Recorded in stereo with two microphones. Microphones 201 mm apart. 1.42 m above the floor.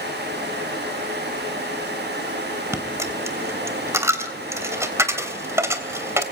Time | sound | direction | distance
2.7 | a dropped coin | 15° right (ahead or behind) | 3 m